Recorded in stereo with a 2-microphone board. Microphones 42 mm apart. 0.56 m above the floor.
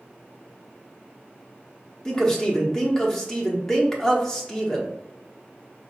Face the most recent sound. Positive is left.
turn(degrees=15)  # may be behind; listen again after turning